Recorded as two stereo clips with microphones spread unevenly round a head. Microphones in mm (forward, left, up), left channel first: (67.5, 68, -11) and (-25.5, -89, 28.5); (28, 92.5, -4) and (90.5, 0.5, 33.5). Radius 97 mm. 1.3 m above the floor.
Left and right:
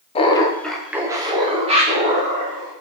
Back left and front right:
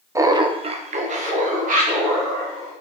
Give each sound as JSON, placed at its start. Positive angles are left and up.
{"t": 0.1, "sound": "laughter", "azimuth_deg": 20, "distance_m": 0.6}